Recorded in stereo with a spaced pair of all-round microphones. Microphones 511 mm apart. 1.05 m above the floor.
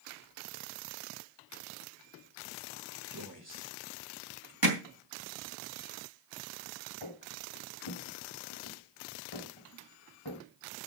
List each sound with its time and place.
3.1 s a man speaking: 35° right (ahead or behind), 4.5 m
4.6 s hammering: 40° right (ahead or behind), 3 m
7.0 s footsteps: 60° left (ahead or behind), 2 m; by 10.4 s 50° left (ahead or behind), 3 m